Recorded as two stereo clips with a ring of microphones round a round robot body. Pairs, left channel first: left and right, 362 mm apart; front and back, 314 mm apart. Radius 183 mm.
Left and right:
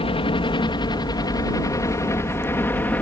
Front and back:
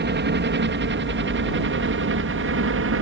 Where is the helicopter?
155° left; by 3.0 s 175° left.